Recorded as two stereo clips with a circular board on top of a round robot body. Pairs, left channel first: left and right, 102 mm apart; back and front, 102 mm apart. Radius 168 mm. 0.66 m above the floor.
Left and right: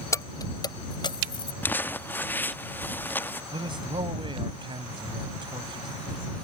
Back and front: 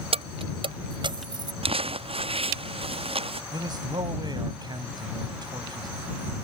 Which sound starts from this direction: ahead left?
Keys jangling, at 0.1 s.